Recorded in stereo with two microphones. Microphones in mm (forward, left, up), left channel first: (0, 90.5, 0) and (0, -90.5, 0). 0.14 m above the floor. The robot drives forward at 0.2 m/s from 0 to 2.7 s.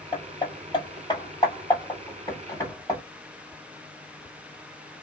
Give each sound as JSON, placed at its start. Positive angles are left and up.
{"t": 0.1, "sound": "hammering", "side_deg": 25, "distance_m": 1.3}